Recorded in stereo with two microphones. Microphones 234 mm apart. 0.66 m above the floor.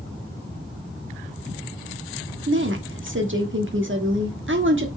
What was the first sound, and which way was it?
A woman speaking, 55° right (ahead or behind).